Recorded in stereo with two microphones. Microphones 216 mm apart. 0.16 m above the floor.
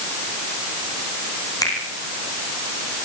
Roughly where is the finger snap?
Centre.